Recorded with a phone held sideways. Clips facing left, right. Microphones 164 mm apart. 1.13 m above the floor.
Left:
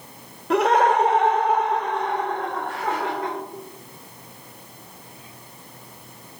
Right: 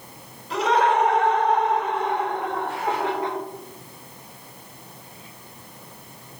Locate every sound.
0.5 s laughter: 65° left (ahead or behind), 0.9 m; by 3.4 s 25° right (ahead or behind), 2.5 m